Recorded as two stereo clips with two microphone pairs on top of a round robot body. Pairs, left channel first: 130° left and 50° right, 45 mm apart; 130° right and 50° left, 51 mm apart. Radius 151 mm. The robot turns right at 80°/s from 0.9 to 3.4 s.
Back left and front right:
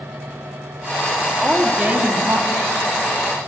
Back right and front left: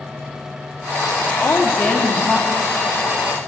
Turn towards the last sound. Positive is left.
turn(degrees=25)